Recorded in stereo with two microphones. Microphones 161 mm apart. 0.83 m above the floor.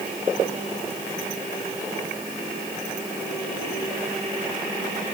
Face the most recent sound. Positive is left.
No sound to turn to.